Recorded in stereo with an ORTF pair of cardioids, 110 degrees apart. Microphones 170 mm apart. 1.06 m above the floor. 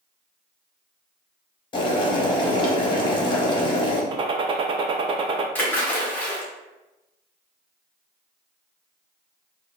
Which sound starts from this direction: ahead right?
A gunshot, at 4.1 s.